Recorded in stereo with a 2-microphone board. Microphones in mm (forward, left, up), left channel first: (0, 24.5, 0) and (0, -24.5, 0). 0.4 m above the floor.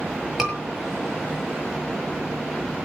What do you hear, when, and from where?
0.4 s a scream: centre (ahead or behind), 7 m